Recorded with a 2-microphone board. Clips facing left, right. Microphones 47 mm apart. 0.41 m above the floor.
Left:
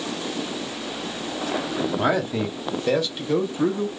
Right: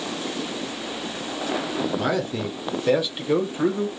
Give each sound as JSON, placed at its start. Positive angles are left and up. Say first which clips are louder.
{"t": 2.0, "sound": "a man speaking", "louder": "left 2 dB", "side_deg": 25, "distance_m": 1.0}